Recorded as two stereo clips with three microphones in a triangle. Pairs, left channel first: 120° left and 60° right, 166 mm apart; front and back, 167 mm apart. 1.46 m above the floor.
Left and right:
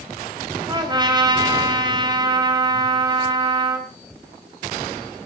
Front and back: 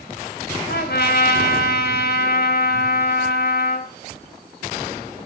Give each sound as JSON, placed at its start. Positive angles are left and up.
{"t": 0.7, "sound": "a trumpet", "azimuth_deg": 5, "distance_m": 3.5}